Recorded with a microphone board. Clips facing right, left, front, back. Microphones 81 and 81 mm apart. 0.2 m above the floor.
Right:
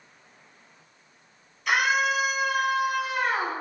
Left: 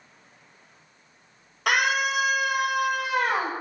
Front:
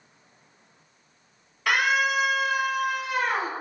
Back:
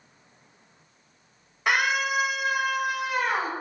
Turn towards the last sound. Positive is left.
turn(degrees=95)